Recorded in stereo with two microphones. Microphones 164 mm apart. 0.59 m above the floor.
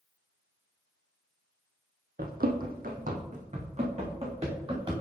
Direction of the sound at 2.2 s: 65° right (ahead or behind).